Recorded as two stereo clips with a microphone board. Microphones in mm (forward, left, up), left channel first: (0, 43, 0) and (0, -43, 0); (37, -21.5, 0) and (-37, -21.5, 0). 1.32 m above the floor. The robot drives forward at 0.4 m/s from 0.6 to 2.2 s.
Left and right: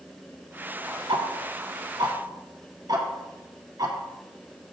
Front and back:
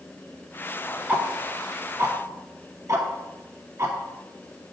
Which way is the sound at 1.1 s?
110° right.